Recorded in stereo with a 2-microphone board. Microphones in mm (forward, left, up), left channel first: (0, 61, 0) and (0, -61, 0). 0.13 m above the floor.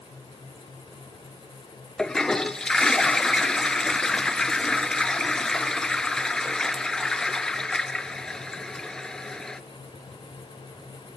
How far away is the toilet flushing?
About 0.6 m.